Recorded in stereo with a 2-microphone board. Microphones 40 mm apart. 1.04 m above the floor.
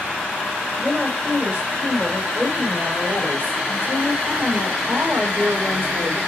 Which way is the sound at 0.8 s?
30° right (ahead or behind).